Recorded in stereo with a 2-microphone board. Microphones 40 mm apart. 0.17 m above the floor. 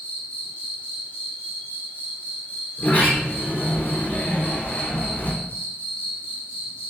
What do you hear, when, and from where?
0.0 s an insect: 35° left (ahead or behind), 0.8 m
2.8 s a sliding door: 35° left (ahead or behind), 0.9 m